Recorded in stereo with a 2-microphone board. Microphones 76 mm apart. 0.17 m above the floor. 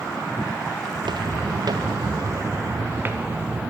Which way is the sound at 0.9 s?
75° right (ahead or behind).